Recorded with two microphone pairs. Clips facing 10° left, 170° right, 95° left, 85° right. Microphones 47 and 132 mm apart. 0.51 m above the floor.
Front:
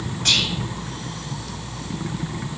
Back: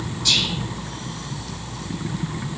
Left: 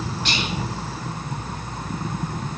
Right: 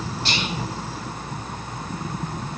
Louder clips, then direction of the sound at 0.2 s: Front 1 dB, right 1 dB; 35° right.